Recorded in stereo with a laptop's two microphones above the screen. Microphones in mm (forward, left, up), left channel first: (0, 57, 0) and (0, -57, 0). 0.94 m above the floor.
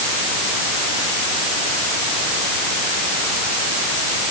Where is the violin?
No violin in this recording.